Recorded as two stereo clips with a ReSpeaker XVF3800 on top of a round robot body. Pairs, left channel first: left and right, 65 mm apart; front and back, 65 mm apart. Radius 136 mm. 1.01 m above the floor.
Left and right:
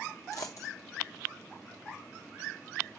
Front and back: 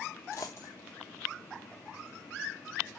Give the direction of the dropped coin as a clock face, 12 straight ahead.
10 o'clock.